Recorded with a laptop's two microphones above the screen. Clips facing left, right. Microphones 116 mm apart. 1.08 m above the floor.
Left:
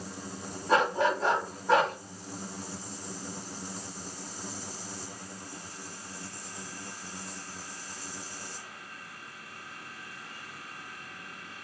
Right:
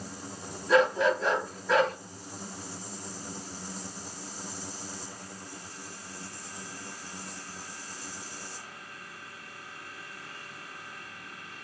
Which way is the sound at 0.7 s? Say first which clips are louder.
Right 2 dB; 40° left (ahead or behind).